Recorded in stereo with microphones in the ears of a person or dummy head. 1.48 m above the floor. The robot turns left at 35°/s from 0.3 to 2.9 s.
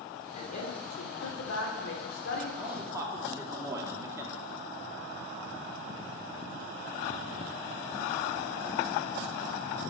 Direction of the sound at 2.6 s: 5° right (ahead or behind).